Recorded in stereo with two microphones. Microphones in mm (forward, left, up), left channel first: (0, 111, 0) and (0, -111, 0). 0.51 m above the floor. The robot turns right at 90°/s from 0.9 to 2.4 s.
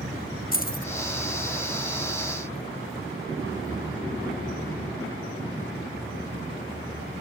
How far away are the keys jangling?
About 0.7 m.